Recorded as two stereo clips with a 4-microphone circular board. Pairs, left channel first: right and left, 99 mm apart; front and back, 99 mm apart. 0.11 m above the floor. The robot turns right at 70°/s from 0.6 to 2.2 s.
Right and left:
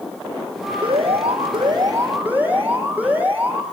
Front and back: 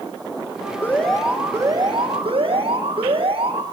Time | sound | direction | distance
0.8 | an alarm | 70° left | 6 m